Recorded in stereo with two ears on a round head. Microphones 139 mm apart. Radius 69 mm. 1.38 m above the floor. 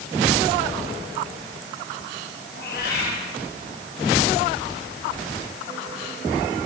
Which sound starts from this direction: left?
A cat meowing, at 2.5 s.